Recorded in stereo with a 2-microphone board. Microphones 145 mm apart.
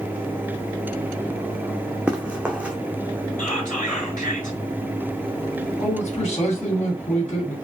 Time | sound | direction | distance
2.1 | running footsteps | 5° right (ahead or behind) | 0.8 m
3.4 | whispering | 60° left (ahead or behind) | 3 m
5.8 | a man speaking | 50° left (ahead or behind) | 2.5 m